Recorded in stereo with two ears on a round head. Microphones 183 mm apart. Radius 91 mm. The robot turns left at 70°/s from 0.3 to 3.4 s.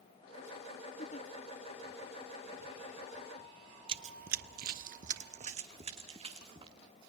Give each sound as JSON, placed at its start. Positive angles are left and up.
{"t": 1.0, "sound": "a giggle", "side_deg": 35, "distance_m": 1.2}
{"t": 3.9, "sound": "running footsteps", "side_deg": -25, "distance_m": 0.8}